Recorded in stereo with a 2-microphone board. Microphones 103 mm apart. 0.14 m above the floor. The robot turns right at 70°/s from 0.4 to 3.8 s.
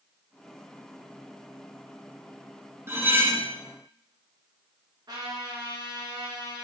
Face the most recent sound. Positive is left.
turn(degrees=-45)  # may be behind; listen again after turning